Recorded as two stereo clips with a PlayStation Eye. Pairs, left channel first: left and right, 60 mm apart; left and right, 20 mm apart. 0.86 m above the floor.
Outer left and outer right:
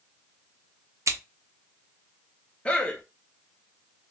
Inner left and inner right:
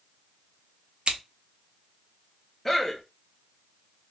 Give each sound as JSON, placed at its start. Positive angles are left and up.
{"t": 1.1, "sound": "scissors", "side_deg": -55, "distance_m": 0.6}
{"t": 2.6, "sound": "a man speaking", "side_deg": 20, "distance_m": 0.7}